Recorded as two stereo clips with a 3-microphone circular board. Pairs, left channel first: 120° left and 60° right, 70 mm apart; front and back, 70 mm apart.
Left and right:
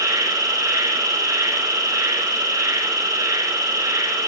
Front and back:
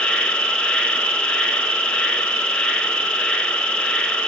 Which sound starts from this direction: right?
An insect, at 0.0 s.